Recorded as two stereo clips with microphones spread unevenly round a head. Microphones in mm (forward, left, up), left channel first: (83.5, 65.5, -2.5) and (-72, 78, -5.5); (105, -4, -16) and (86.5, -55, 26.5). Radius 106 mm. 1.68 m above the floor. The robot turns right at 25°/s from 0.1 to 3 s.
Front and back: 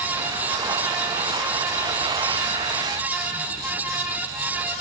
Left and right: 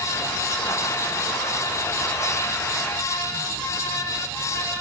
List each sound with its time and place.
Only background noise.